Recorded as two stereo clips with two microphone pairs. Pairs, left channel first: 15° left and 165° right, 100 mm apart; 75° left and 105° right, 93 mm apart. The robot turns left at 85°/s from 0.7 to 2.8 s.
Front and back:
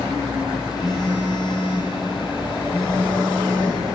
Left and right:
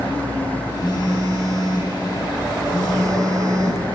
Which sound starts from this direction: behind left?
A phone buzzing, at 0.8 s.